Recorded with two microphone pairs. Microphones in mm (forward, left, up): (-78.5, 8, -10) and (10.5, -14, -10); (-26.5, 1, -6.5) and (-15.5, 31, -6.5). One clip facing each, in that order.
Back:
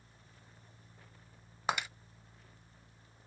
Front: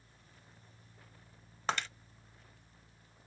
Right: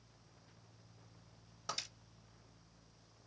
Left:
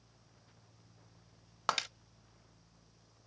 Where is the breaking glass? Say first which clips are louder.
Back 1 dB, left 10 dB; 90° left, 0.6 m.